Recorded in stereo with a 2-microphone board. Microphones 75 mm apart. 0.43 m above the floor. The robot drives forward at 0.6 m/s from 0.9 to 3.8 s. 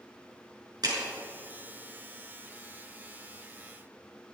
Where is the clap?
60° right (ahead or behind), 6 m.